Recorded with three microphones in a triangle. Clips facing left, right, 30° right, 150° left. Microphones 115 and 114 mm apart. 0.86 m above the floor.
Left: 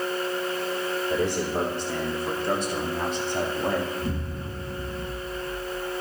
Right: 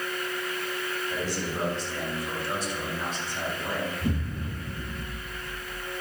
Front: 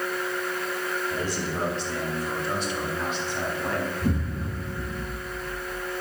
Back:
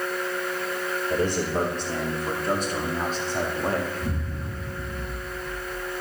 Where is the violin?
I don't hear a violin.